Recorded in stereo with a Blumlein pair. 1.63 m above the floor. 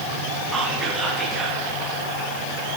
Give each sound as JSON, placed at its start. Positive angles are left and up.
{"t": 0.5, "sound": "whispering", "azimuth_deg": -10, "distance_m": 1.4}